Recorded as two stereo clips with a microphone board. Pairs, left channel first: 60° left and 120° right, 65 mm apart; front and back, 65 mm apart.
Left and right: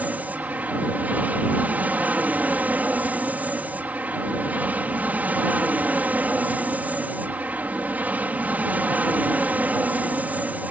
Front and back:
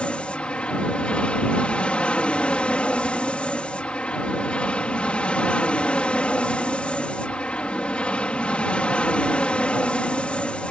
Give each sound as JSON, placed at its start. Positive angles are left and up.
{"t": 0.0, "sound": "an aircraft", "azimuth_deg": -65}